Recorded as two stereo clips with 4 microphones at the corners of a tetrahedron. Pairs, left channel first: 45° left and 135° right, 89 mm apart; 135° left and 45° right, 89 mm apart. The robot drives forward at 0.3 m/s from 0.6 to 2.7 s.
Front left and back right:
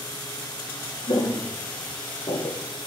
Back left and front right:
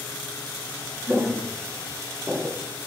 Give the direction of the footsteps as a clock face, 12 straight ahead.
11 o'clock.